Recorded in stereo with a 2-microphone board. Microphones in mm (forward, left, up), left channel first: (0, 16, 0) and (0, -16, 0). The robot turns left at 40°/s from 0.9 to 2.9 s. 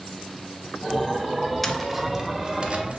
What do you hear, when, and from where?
1.6 s tapping: 10° left, 0.5 m; by 3.0 s 45° right, 0.5 m